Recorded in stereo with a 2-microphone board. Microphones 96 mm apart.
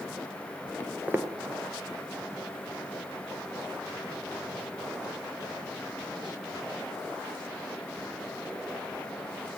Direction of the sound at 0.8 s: 20° left (ahead or behind).